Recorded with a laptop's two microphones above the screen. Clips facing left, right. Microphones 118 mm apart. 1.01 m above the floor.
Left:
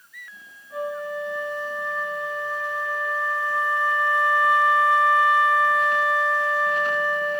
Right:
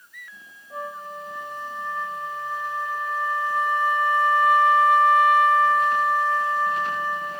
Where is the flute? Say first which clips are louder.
Left 6 dB; 20° right (ahead or behind), 1.7 m.